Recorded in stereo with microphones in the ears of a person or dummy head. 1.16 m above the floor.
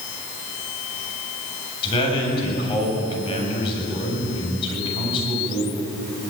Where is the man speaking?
30° left (ahead or behind), 8 m.